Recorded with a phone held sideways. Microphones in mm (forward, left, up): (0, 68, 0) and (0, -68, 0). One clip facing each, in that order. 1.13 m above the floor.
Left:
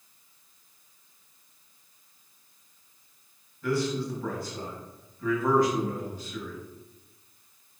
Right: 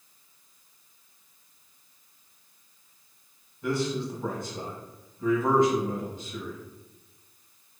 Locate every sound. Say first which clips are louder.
3.6 s a man speaking: even; 20° right (ahead or behind), 1.3 m